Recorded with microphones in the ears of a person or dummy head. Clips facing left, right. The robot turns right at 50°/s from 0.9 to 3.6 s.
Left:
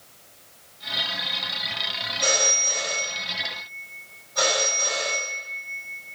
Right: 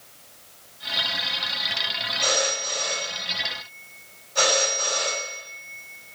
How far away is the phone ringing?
About 3.5 m.